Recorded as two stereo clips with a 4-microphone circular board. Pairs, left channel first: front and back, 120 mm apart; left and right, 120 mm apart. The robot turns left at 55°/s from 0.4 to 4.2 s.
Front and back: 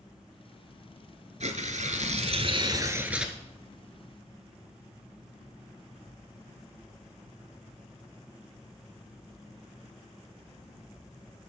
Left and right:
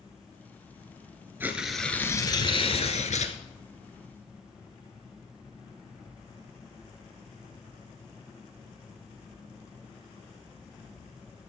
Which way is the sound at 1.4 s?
160° right.